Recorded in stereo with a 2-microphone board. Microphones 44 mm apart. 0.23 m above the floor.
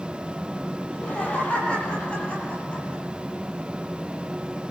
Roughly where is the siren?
I don't hear a siren.